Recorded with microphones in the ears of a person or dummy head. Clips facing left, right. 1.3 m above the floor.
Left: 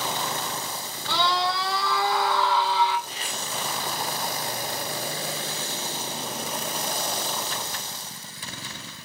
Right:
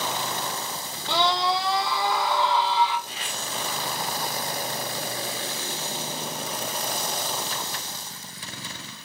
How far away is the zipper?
About 1.6 m.